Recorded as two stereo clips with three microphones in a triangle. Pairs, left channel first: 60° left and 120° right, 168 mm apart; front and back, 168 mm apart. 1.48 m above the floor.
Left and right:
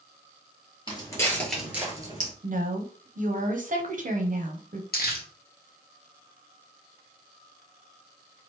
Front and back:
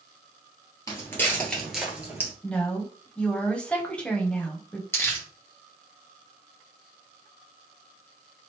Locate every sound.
0.9 s footsteps: 50° left, 1.6 m; by 2.3 s 120° right, 1.6 m
2.4 s a woman speaking: 80° right, 0.7 m
4.9 s crumpling: 75° left, 1.0 m